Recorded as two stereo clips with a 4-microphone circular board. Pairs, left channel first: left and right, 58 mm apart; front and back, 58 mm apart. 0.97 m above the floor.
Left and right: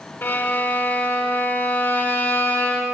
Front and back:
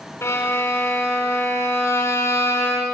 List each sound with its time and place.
0.2 s a violin: 40° left, 4 m